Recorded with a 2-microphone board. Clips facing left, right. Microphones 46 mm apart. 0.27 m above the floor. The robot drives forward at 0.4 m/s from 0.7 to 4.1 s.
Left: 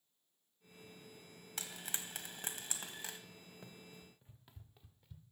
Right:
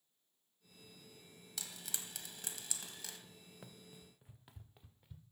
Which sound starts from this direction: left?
Frying, at 1.6 s.